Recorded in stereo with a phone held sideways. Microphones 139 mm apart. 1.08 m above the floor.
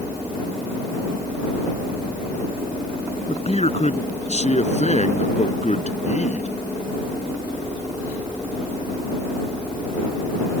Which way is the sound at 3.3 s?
45° left (ahead or behind).